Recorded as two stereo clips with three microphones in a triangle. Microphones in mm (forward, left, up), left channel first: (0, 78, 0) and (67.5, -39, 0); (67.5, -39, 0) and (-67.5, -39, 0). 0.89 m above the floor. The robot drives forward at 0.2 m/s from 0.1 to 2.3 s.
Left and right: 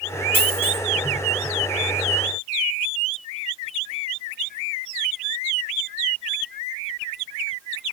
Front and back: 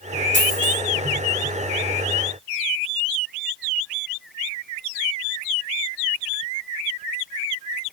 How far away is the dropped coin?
About 3 m.